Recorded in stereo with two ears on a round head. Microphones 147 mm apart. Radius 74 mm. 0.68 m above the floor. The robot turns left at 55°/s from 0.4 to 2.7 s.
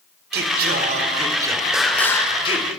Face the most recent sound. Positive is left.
turn(degrees=130)